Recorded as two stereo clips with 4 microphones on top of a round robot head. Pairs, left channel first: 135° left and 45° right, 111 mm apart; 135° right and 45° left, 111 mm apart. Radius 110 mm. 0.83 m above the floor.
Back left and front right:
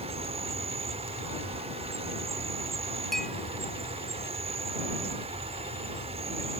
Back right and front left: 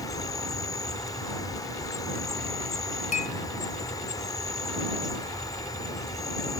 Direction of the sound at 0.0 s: 75° right.